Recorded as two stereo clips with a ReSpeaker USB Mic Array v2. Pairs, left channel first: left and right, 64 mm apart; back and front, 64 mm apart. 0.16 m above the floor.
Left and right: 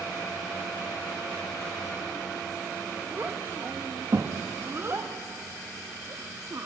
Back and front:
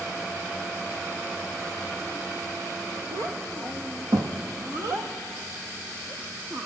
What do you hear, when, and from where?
3.1 s a child speaking: 25° right, 3 m; by 6.7 s 45° right, 4.5 m